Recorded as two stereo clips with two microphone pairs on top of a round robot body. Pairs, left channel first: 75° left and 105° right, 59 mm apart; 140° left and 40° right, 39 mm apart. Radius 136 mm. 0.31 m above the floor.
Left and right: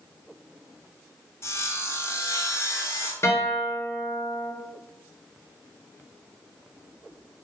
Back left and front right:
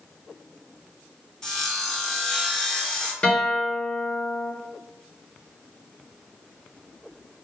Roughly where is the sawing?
Left.